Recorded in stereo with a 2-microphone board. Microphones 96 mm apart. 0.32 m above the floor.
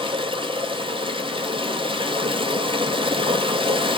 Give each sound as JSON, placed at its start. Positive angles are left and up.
{"t": 0.0, "sound": "running water", "side_deg": -65, "distance_m": 1.0}